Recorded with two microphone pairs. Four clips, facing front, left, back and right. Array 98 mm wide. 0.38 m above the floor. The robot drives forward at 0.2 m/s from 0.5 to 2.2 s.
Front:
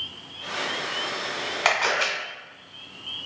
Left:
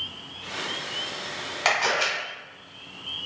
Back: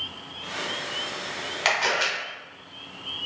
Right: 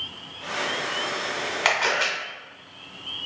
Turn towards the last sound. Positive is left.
turn(degrees=-40)